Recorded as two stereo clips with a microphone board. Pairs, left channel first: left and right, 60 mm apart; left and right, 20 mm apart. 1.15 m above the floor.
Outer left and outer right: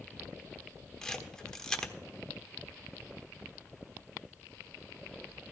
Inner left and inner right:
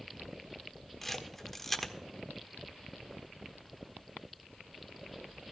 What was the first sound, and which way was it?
A camera shutter, 5° left (ahead or behind).